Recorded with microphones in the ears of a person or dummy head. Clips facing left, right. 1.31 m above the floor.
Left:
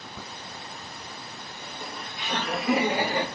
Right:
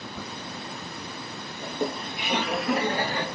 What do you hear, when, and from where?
1.6 s laughter: 50° right (ahead or behind), 1.3 m; by 3.3 s 15° left (ahead or behind), 2.5 m